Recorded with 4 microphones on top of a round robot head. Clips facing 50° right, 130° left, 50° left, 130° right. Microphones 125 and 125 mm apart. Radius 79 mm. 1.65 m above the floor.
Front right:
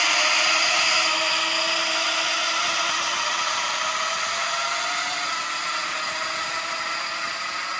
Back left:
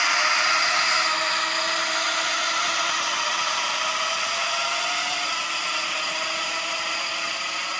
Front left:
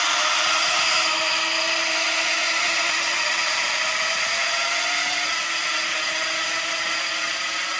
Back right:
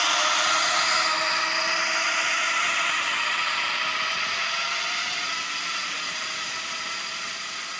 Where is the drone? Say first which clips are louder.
Even, front left 1 dB; 50° right; by 7.8 s 60° left.